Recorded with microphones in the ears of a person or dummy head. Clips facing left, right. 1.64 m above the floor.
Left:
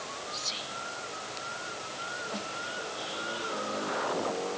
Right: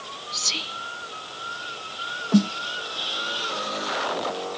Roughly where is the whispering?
Right.